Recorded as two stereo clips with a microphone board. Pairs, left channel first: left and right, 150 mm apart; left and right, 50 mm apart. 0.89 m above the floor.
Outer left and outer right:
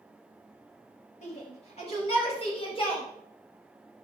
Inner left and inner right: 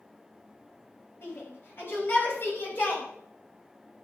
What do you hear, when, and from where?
1.2 s a shout: 45° left (ahead or behind), 6 m; by 3.0 s 35° left (ahead or behind), 5.5 m